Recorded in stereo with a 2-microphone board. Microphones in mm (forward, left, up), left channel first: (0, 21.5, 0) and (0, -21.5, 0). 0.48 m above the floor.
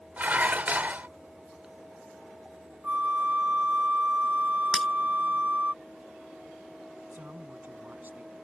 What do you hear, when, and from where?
0.2 s dishes clattering: 40° right (ahead or behind)
2.8 s a flute: 35° right (ahead or behind)
4.7 s breaking glass: 10° left (ahead or behind)
7.1 s a man speaking: 45° right (ahead or behind)